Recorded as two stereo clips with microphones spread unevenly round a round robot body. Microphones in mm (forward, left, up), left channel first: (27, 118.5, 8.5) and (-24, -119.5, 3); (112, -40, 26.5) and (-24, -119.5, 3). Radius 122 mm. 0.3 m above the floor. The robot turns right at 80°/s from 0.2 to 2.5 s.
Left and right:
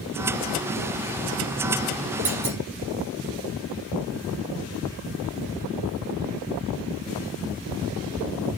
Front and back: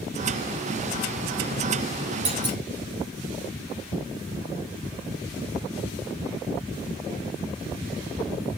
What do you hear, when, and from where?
2.2 s a clunk: 165° right, 5.5 m; by 2.6 s 145° right, 5.5 m